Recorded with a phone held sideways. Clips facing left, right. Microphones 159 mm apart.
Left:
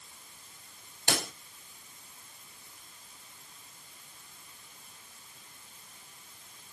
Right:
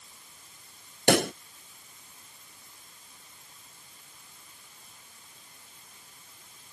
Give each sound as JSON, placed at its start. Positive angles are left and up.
{"t": 1.1, "sound": "a pop", "side_deg": -65}